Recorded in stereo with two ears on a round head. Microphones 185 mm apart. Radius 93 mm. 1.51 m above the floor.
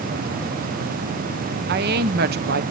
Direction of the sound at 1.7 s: 50° right (ahead or behind).